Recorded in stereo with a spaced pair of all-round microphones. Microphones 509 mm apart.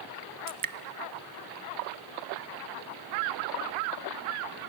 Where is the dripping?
45° right (ahead or behind), 0.5 m.